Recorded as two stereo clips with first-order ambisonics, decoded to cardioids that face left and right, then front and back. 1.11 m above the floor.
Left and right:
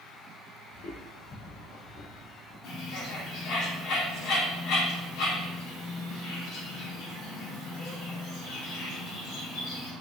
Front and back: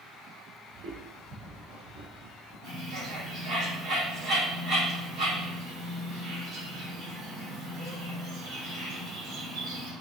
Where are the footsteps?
135° left, 2.5 m; by 2.5 s 155° left, 3.5 m.